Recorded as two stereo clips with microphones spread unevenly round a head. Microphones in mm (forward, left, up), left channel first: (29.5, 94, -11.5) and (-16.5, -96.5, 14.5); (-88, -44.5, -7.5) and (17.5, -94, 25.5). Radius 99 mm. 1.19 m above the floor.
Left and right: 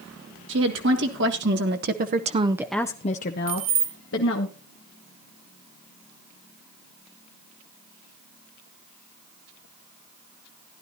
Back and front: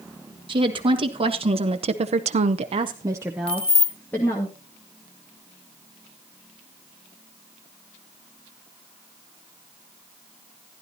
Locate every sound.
0.5 s a woman speaking: 75° right, 1.8 m; by 4.5 s 85° left, 1.4 m
3.5 s keys jangling: 160° right, 1.4 m